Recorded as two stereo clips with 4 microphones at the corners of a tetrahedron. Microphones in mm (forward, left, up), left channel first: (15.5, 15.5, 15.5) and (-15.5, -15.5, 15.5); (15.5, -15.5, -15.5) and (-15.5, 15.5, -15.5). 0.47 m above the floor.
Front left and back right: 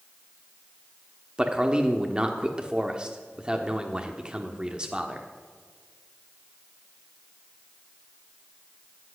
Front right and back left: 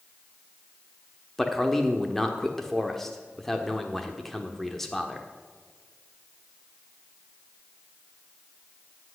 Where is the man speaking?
120° right, 1.1 m.